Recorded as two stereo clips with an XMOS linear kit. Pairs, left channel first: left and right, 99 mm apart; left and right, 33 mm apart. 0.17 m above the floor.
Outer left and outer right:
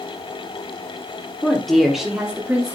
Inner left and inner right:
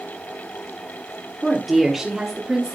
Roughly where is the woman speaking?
Centre.